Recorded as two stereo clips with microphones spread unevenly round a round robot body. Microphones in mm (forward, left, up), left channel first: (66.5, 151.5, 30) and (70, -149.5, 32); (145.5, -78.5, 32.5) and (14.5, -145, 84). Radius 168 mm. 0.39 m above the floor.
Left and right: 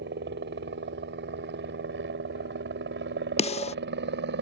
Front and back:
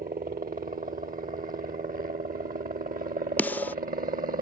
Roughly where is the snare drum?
Ahead left.